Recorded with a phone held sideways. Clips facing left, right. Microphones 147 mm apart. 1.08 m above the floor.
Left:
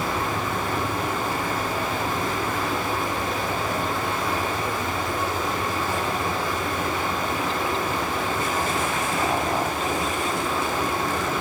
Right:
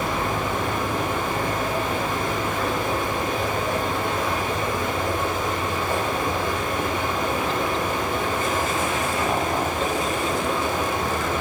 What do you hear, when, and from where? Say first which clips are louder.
0.0 s running water: right 1 dB; 65° right (ahead or behind), 4.5 m